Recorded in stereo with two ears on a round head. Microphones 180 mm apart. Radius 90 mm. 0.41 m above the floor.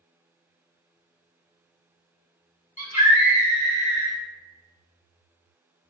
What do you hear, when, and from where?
2.8 s a scream: 35° left (ahead or behind), 1.3 m